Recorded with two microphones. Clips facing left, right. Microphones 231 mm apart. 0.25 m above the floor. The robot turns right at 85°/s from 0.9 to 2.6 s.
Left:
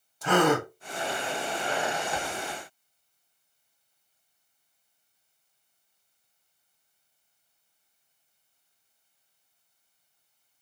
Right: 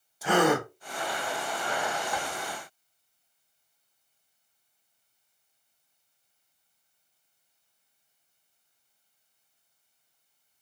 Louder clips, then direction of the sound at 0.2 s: Left 1 dB; 10° right (ahead or behind).